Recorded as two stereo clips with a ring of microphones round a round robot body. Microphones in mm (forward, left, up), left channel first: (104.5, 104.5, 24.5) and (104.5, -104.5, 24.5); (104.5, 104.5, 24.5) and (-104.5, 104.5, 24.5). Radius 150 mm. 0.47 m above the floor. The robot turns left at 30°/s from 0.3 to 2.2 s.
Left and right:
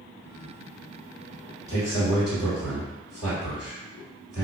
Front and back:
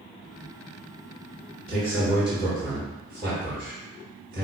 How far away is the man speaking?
About 1.7 m.